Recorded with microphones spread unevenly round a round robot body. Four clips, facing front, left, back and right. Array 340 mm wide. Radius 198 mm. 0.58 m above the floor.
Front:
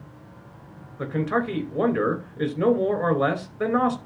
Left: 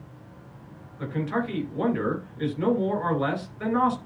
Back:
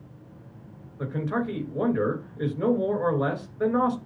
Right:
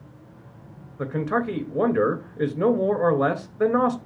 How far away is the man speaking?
About 3.5 m.